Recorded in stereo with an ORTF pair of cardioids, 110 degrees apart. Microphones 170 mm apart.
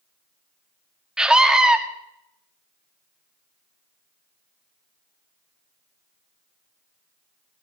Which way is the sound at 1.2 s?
5° right.